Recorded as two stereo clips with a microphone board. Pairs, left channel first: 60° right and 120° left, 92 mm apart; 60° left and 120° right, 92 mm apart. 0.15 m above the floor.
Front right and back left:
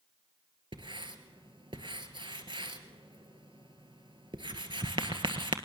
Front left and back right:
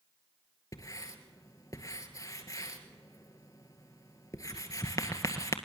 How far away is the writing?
About 1.8 m.